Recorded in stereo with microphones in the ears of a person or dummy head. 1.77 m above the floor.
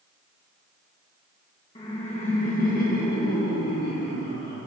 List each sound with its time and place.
1.8 s laughter: 25° left (ahead or behind), 1.4 m; by 4.6 s 55° left (ahead or behind), 3 m